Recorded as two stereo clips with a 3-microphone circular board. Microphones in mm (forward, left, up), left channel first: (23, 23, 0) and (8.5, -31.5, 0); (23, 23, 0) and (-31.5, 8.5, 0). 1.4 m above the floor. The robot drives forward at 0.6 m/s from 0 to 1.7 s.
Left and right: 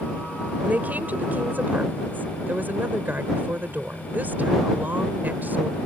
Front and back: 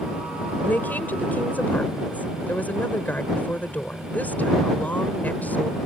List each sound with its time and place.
0.7 s a woman speaking: 45° right